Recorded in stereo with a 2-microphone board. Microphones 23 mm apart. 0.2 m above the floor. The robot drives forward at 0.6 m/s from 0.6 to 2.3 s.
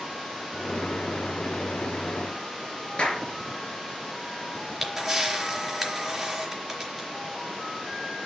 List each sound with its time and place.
3.0 s a clap: 45° left (ahead or behind), 3.5 m
4.5 s a camera shutter: 10° right (ahead or behind), 4 m